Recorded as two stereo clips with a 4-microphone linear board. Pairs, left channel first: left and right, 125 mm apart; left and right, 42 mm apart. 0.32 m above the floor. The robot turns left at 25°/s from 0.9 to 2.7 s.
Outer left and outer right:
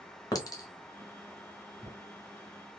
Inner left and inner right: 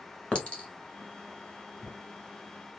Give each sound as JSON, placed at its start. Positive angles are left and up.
{"t": 0.3, "sound": "a clink", "side_deg": 30, "distance_m": 0.8}